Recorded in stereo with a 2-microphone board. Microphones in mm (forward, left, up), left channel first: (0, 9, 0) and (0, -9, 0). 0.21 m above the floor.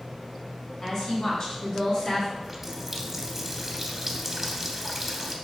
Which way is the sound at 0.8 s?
45° left (ahead or behind).